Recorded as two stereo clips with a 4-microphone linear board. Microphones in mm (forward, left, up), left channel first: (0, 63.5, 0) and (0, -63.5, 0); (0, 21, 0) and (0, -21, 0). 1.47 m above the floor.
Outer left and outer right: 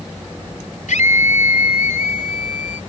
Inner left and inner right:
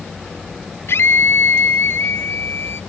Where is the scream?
85° left; by 2.8 s 80° left.